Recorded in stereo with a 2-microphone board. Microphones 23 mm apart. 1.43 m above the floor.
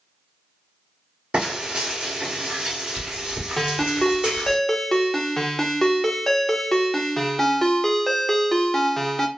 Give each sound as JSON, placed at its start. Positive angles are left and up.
{"t": 1.3, "sound": "frying", "side_deg": -50, "distance_m": 1.9}
{"t": 3.6, "sound": "a ringtone", "side_deg": 15, "distance_m": 0.6}